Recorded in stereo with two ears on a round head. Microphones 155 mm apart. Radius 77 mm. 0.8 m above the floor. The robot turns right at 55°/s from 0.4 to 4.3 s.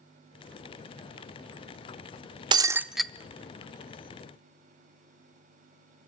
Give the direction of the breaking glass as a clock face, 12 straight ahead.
1 o'clock.